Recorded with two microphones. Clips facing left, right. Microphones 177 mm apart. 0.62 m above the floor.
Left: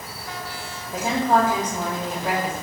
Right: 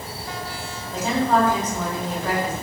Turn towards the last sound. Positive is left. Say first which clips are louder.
# even
turn(degrees=15)  # may be behind; listen again after turning